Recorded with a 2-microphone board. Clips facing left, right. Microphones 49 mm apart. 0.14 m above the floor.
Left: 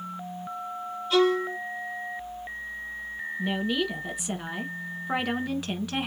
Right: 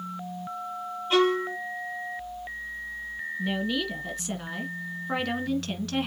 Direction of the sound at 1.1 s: 35° right (ahead or behind).